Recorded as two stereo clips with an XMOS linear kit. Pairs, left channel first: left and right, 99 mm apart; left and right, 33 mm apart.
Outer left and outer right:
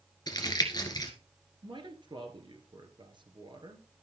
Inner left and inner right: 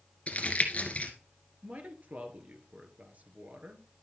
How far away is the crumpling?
About 1.9 m.